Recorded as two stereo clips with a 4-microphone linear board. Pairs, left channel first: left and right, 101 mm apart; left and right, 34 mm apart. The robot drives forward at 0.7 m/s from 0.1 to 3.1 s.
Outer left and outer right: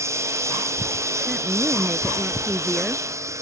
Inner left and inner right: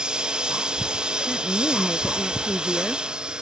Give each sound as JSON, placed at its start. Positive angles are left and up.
{"t": 0.0, "sound": "a lawn mower", "side_deg": -25}
{"t": 1.3, "sound": "a woman speaking", "side_deg": 0}